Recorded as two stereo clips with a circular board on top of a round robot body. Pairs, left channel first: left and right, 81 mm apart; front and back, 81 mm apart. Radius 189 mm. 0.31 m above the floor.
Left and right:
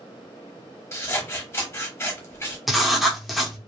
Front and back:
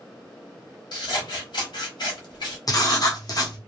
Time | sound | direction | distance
0.9 | scissors | 30° left | 1.3 m
2.7 | writing | straight ahead | 1.1 m